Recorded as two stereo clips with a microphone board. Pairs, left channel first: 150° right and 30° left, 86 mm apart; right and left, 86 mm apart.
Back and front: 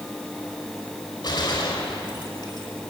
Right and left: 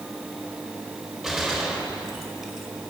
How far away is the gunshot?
About 4.5 m.